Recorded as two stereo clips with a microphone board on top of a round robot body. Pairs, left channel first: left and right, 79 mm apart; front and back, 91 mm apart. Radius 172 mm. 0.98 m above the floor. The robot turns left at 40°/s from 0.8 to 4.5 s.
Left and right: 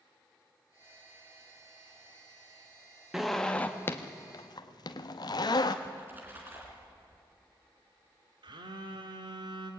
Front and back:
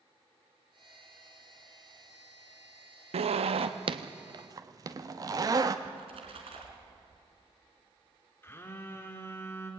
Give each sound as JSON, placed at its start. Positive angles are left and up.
{"t": 3.1, "sound": "a zipper", "azimuth_deg": -175, "distance_m": 0.8}
{"t": 5.8, "sound": "a splash", "azimuth_deg": -160, "distance_m": 3.0}
{"t": 8.4, "sound": "a phone buzzing", "azimuth_deg": -65, "distance_m": 1.8}